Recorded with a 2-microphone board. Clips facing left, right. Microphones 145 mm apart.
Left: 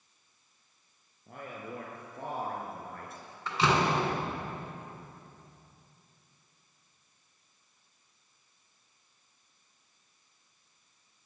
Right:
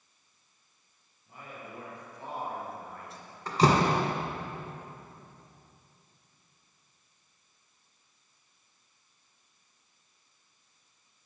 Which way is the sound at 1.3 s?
60° left (ahead or behind).